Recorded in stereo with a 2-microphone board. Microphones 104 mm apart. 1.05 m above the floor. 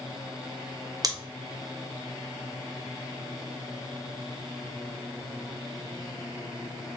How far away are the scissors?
About 0.6 m.